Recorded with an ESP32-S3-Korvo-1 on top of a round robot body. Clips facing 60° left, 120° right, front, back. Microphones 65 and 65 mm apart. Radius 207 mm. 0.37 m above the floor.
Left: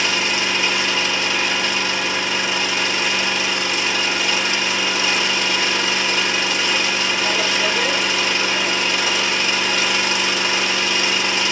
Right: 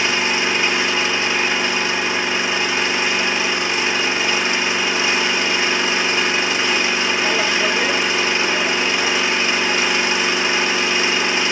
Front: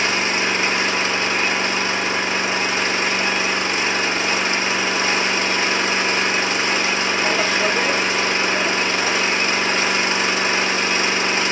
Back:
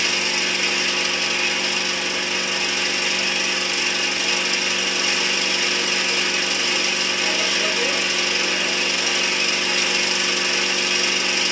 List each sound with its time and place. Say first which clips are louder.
0.0 s an engine running: right 2 dB, front 4 dB; 55° right, 0.7 m